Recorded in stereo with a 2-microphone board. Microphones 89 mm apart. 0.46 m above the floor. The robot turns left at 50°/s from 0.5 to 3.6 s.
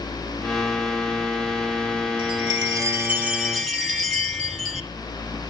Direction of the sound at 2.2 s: 115° right.